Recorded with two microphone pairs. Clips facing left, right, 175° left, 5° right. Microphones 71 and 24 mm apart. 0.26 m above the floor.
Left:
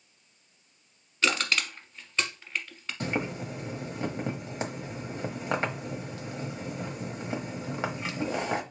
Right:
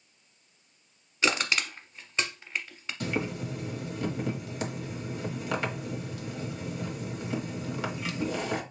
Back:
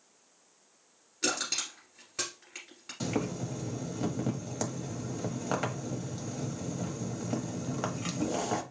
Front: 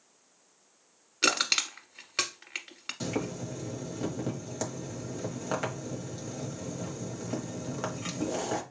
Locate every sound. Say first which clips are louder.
1.2 s crushing: even, front 6 dB; 15° right, 1.1 m
3.0 s boiling: even, back 1 dB; 95° left, 1.0 m